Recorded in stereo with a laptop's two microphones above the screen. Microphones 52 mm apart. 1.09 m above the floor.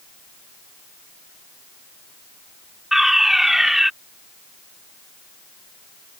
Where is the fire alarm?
5° right (ahead or behind).